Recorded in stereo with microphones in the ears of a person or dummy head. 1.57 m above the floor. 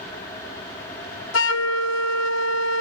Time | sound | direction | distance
1.3 | a flute | 85° left | 0.6 m